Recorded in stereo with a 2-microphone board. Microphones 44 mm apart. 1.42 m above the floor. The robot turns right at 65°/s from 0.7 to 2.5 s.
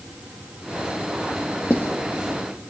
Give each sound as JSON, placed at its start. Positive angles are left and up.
{"t": 1.7, "sound": "writing", "side_deg": 55, "distance_m": 1.0}